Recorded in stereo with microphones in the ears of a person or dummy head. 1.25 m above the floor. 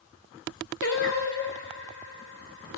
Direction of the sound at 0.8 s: 65° left (ahead or behind).